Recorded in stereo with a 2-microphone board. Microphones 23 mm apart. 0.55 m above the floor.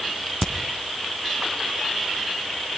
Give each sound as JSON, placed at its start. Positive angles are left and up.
{"t": 0.4, "sound": "a crack", "side_deg": -10, "distance_m": 2.5}